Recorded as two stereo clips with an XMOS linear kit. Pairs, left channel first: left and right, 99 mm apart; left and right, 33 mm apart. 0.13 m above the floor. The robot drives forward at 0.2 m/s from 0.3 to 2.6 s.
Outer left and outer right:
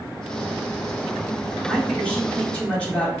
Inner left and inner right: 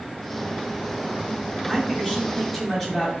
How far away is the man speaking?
About 2.5 m.